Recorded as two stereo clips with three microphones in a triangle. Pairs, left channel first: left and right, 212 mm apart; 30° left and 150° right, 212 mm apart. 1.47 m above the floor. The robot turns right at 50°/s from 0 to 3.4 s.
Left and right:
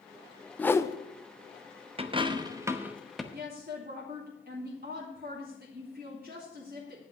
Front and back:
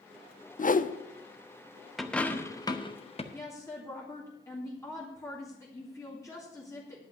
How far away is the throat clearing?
I don't hear throat clearing.